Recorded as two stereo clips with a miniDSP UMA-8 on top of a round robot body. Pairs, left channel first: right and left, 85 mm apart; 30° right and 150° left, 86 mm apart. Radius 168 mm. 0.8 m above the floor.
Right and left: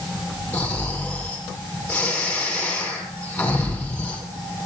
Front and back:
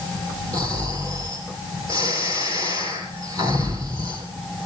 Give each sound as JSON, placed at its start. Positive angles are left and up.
{"t": 0.5, "sound": "snoring", "azimuth_deg": -165, "distance_m": 7.0}